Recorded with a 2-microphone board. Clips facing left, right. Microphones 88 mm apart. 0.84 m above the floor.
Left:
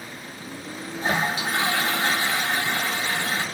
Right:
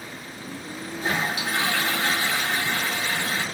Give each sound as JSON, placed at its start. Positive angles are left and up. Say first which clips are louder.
{"t": 1.0, "sound": "a toilet flushing", "louder": "left 2 dB", "side_deg": 30, "distance_m": 1.1}